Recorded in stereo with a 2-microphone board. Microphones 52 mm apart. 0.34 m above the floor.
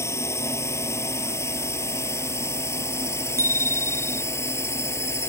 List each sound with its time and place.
0.0 s a drone: 65° left (ahead or behind); by 5.3 s 60° left (ahead or behind)
3.4 s a bicycle bell: 80° right